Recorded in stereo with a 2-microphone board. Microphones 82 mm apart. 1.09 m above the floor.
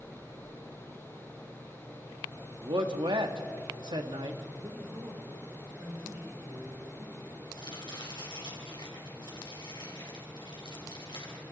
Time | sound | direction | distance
2.6 | a man speaking | 70° right (ahead or behind) | 1.6 m
4.6 | a man speaking | 45° right (ahead or behind) | 3.5 m
7.5 | chopping | 75° left (ahead or behind) | 4 m